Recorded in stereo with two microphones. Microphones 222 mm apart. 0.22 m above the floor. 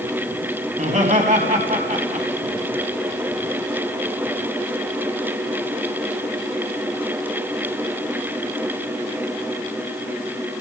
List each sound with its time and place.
0.7 s laughter: 35° right (ahead or behind), 1.7 m